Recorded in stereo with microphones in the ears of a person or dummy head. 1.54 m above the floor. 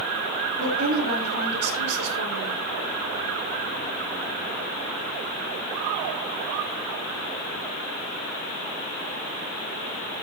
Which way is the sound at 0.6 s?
50° right (ahead or behind).